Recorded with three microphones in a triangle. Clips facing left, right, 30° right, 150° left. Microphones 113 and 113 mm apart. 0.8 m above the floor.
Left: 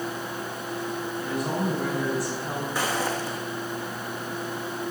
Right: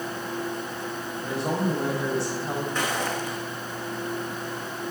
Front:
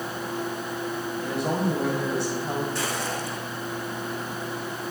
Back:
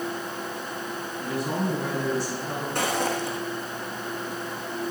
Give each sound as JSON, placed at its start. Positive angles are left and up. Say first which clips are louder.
{"t": 1.2, "sound": "a woman speaking", "louder": "right 2 dB, front 1 dB", "azimuth_deg": -30, "distance_m": 3.5}
{"t": 2.8, "sound": "footsteps", "louder": "left 1 dB, back 3 dB", "azimuth_deg": 170, "distance_m": 2.0}